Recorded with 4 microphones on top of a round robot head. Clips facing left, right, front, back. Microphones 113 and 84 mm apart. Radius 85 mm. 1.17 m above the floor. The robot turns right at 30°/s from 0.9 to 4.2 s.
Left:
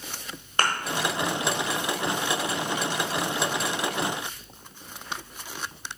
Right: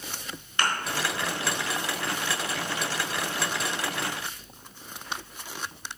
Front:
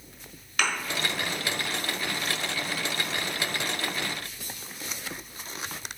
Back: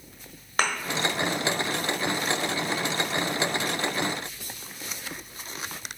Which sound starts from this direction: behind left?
A thud, at 0.6 s.